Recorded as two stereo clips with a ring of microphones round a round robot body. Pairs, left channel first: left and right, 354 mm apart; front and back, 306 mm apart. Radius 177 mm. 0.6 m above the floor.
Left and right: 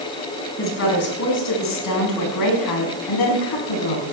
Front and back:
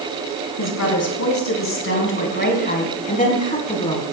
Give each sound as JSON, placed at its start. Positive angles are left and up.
{"t": 0.6, "sound": "a woman speaking", "azimuth_deg": 35, "distance_m": 5.5}